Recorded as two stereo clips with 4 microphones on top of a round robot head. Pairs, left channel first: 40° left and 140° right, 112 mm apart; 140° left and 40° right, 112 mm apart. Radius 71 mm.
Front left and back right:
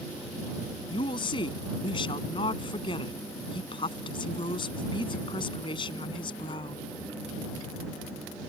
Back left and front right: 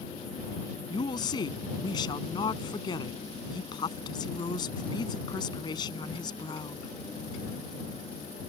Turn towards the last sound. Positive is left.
turn(degrees=90)